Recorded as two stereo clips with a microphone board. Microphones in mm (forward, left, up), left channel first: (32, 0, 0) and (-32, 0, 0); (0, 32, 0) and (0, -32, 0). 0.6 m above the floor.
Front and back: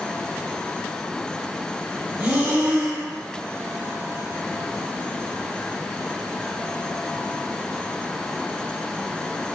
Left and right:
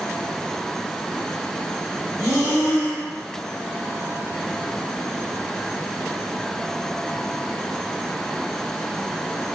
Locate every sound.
2.2 s breathing: 105° right, 1.5 m